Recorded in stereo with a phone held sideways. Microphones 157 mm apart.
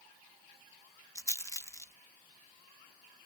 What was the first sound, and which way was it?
A rattle, 20° left (ahead or behind).